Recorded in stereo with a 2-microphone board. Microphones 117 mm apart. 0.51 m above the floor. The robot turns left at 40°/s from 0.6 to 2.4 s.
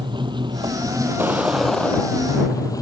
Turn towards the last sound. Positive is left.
turn(degrees=150)